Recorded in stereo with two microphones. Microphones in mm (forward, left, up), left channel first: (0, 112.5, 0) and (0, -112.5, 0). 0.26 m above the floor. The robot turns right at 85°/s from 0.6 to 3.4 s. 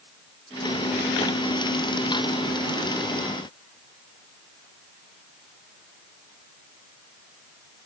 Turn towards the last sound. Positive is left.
No sound to turn to.